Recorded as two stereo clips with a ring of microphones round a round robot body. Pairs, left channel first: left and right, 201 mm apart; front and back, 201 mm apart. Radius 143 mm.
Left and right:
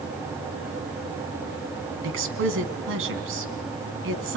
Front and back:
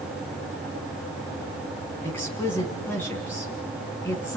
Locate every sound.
2.0 s a woman speaking: 85° right, 3 m